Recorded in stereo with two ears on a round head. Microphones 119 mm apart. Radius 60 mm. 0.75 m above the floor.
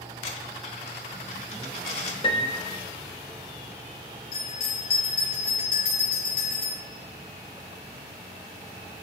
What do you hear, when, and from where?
0.2 s a dropped coin: 50° left (ahead or behind), 1.3 m
2.2 s a piano: 35° left (ahead or behind), 1.0 m
4.3 s a bell: 80° left, 5 m